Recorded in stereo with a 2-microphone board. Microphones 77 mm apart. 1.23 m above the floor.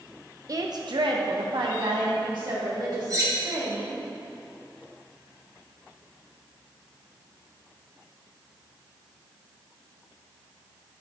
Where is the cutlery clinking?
45° right (ahead or behind), 1.1 m.